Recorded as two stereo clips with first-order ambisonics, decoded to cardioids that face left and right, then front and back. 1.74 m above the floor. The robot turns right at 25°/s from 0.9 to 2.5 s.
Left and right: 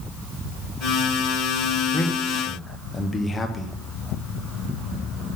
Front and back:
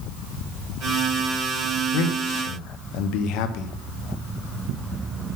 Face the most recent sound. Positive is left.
turn(degrees=10)